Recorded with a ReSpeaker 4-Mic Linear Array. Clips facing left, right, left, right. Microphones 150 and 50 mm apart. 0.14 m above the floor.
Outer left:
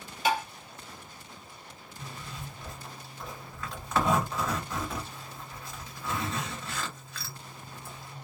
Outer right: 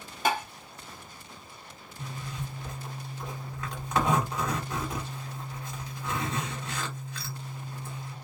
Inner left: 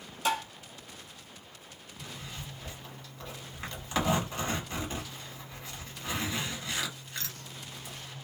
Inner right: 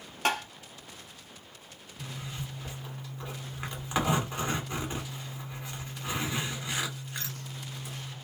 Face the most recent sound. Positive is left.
turn(degrees=-20)  # may be behind; listen again after turning